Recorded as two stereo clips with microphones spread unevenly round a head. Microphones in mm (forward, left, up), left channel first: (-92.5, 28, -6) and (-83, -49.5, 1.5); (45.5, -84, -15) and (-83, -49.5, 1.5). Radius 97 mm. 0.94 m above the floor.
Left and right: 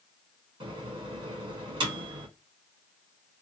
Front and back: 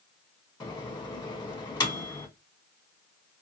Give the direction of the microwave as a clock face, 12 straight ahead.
2 o'clock.